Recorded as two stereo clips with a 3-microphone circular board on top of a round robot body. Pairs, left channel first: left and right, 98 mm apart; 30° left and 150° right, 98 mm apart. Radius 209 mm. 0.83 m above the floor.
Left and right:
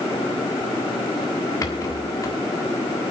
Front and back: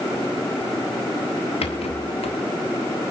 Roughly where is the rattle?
Ahead left.